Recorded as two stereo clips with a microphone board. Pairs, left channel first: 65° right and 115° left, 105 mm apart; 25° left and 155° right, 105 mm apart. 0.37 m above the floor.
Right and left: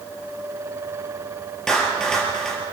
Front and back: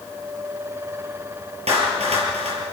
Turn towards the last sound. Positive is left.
turn(degrees=-150)